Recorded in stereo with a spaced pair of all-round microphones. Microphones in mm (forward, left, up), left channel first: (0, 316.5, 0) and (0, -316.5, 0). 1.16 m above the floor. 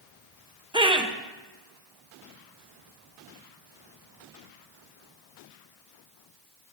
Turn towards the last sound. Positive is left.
turn(degrees=-10)  # may be behind; listen again after turning